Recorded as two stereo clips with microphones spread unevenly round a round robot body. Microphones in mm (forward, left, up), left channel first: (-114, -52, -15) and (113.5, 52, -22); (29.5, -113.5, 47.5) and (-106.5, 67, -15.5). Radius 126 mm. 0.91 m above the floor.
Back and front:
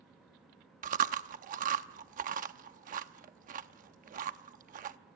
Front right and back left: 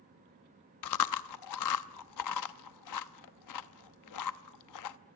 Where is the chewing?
40° right, 0.8 m.